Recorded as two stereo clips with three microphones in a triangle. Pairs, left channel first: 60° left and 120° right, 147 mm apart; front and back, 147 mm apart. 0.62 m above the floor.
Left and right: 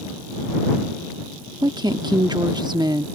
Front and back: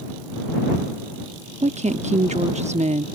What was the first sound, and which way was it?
A woman speaking, 170° right.